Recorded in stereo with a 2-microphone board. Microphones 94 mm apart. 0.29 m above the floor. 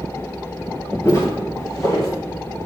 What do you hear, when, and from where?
1.1 s footsteps: 30° left (ahead or behind), 1.9 m; by 2.1 s 40° left (ahead or behind), 3 m